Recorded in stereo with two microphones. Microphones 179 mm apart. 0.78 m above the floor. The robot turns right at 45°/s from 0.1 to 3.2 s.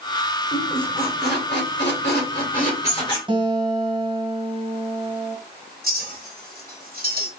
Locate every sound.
0.5 s a squeak: 35° left (ahead or behind), 1.9 m; by 3.2 s 25° left (ahead or behind), 1.9 m
3.3 s a guitar: 30° right (ahead or behind), 1.5 m
5.8 s a clink: 60° right (ahead or behind), 2 m